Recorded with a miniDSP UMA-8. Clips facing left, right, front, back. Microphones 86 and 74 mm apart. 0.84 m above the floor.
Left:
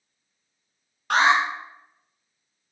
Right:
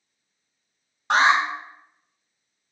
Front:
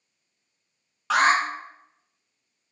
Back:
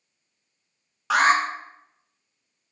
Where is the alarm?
100° right, 0.9 m.